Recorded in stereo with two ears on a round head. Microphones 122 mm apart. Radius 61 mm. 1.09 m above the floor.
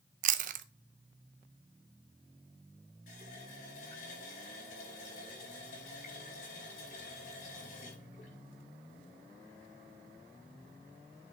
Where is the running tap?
65° left (ahead or behind), 5.5 m.